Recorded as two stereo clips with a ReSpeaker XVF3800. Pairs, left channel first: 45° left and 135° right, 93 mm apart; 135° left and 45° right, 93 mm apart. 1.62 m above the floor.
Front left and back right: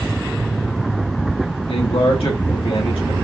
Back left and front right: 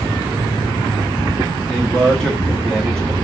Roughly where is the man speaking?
Ahead left.